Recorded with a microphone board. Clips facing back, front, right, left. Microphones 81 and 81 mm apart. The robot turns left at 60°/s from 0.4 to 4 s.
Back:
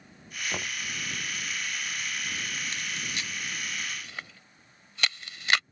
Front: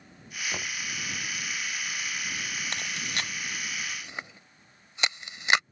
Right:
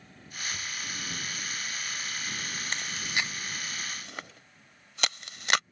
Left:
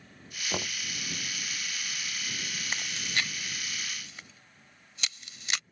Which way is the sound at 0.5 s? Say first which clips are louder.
Back 1 dB, left 7 dB; 100° left.